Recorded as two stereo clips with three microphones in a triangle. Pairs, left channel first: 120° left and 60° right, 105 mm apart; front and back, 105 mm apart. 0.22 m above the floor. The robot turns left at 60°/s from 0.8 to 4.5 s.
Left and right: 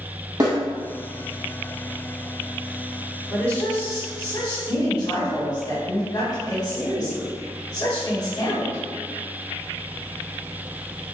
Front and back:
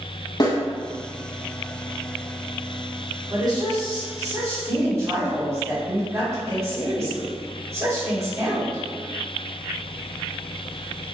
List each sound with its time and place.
0.4 s a snare drum: 30° right, 1.2 m
3.3 s a woman speaking: 155° right, 1.8 m; by 8.8 s 130° left, 1.8 m